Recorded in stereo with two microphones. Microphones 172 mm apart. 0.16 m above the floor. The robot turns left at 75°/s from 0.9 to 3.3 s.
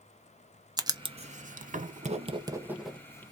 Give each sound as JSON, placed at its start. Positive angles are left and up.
{"t": 0.8, "sound": "writing", "side_deg": -25, "distance_m": 0.6}